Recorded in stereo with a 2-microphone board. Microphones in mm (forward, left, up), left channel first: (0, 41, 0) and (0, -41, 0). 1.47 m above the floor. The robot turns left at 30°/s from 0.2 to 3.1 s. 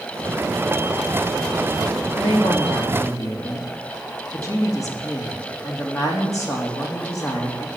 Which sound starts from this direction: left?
A woman speaking, at 2.2 s.